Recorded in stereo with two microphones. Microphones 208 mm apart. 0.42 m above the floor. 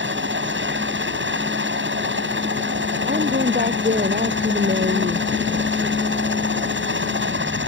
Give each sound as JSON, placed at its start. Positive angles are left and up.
{"t": 0.0, "sound": "a helicopter", "side_deg": -65}
{"t": 3.1, "sound": "a woman speaking", "side_deg": -45}